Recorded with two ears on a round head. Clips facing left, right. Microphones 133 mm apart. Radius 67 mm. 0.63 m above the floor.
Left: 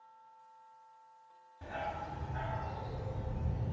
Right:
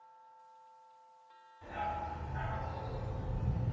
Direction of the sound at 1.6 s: 70° left (ahead or behind).